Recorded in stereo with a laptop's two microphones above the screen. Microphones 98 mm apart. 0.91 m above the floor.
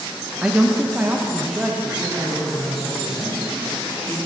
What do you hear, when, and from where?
0.4 s a man speaking: 10° right (ahead or behind), 0.8 m